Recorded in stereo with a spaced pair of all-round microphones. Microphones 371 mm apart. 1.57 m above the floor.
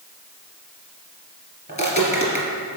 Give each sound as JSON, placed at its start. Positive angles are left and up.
{"t": 1.7, "sound": "footsteps", "side_deg": 20, "distance_m": 1.6}